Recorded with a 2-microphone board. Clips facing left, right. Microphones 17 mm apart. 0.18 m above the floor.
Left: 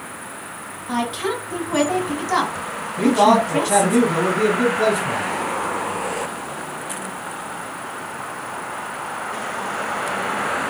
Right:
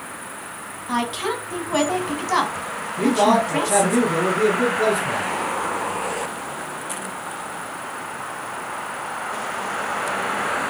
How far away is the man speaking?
About 1.3 m.